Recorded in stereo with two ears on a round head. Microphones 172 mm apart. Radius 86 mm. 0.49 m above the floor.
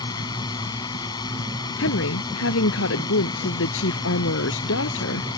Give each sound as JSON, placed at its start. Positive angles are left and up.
{"t": 0.0, "sound": "a drone", "side_deg": 20}
{"t": 1.8, "sound": "a woman speaking", "side_deg": 80}